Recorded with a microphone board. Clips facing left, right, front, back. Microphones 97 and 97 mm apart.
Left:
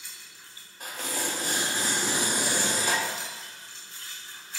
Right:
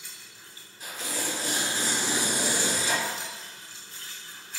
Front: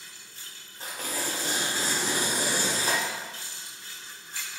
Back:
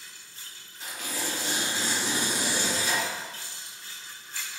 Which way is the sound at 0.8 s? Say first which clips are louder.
Left 1 dB, front 1 dB; 50° left.